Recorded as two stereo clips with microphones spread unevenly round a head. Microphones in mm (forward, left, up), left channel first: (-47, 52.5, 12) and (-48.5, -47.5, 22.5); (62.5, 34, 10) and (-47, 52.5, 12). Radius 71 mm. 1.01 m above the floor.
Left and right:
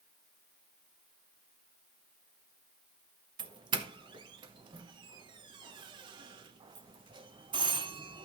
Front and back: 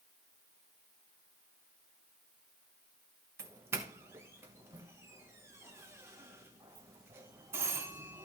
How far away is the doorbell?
About 1.0 m.